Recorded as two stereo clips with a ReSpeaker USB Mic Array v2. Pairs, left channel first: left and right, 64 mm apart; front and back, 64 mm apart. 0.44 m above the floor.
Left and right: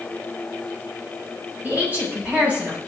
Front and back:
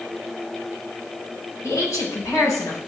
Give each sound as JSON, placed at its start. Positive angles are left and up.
{"t": 1.6, "sound": "a woman speaking", "azimuth_deg": -25, "distance_m": 8.5}